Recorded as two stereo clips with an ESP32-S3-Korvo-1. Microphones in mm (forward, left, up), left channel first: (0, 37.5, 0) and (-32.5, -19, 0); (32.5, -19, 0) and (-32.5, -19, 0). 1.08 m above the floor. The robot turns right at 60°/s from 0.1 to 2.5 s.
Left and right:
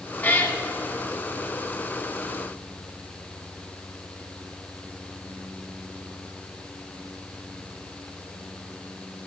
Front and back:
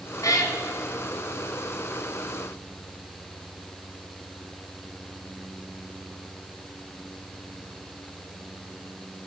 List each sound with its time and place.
0.2 s a cat meowing: straight ahead, 2.0 m; by 0.6 s 20° left, 2.0 m